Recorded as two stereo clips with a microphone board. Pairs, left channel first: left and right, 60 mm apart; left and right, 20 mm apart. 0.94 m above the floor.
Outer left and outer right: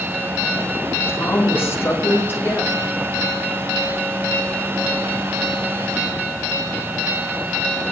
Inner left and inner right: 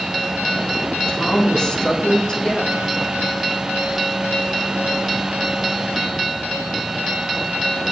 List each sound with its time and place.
1.1 s a woman speaking: 40° left (ahead or behind), 2.5 m